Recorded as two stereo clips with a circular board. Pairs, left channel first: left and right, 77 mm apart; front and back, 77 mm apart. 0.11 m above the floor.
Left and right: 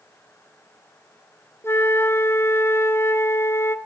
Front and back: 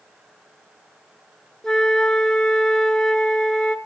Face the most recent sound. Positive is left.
turn(degrees=75)